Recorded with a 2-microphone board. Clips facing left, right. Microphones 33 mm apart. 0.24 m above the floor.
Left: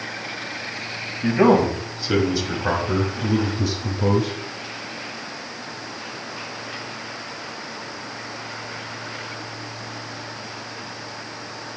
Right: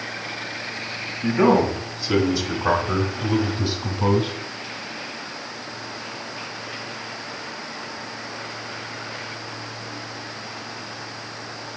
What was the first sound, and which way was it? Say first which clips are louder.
A man speaking: left 1 dB; 20° left (ahead or behind).